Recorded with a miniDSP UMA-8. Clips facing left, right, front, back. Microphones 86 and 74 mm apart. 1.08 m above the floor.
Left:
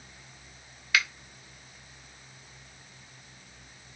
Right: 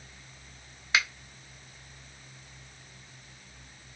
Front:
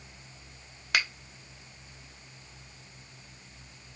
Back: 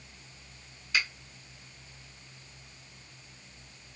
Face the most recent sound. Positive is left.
turn(degrees=-25)